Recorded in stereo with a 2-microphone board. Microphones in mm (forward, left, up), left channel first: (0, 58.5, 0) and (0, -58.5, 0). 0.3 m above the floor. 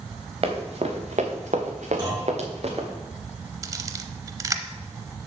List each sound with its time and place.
0.4 s running footsteps: 55° right (ahead or behind), 2 m
2.0 s a clunk: 35° right (ahead or behind), 3.5 m
3.6 s a camera shutter: 30° right (ahead or behind), 0.6 m